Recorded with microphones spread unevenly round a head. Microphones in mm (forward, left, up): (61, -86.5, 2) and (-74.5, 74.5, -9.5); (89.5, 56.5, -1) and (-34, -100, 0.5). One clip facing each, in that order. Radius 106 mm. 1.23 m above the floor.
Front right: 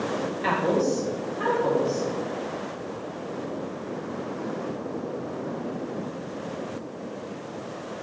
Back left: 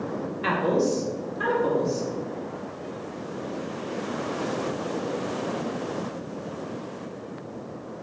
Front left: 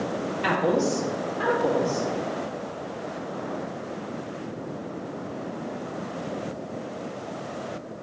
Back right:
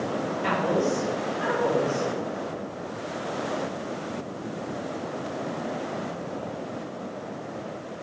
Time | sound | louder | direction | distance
0.4 | a woman speaking | back left 1 dB, front left 2 dB | 55° left | 2.5 m